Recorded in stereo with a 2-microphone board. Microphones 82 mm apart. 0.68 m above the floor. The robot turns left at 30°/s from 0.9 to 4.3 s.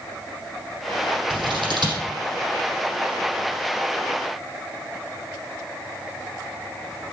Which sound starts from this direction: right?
Scissors, at 1.3 s.